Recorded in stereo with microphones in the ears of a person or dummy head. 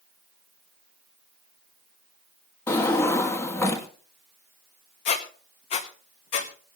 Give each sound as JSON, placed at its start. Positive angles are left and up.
{"t": 2.7, "sound": "a drawer", "side_deg": 20, "distance_m": 1.7}
{"t": 5.0, "sound": "a squeak", "side_deg": 35, "distance_m": 1.2}